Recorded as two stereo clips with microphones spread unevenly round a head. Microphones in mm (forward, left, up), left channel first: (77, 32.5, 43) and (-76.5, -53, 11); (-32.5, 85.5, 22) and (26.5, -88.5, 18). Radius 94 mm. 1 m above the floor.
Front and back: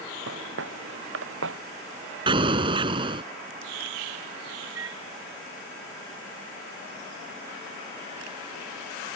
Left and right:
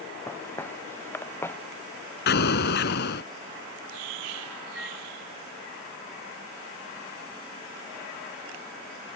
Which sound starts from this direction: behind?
Footsteps, at 0.3 s.